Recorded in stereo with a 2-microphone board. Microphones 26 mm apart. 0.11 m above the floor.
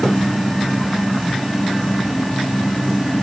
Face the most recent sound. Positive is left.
No sound to turn to.